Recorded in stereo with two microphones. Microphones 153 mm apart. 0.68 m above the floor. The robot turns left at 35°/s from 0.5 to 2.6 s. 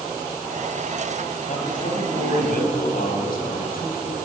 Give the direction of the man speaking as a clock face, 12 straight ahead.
8 o'clock.